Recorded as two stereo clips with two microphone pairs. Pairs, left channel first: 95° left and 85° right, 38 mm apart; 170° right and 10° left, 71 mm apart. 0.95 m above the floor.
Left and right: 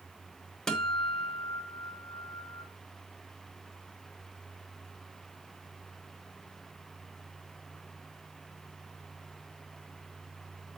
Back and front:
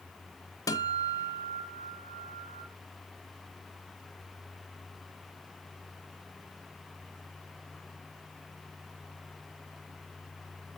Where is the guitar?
165° left, 1.5 m.